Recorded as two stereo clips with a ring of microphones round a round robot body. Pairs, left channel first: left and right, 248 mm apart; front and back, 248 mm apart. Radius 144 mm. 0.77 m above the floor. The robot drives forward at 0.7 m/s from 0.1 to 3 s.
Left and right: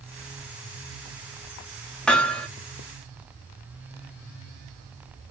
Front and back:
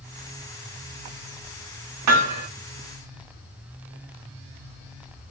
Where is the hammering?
175° left, 3.5 m.